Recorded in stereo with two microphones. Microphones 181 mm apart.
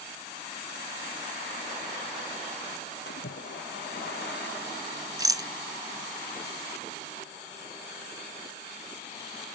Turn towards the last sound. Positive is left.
turn(degrees=-20)  # may be behind; listen again after turning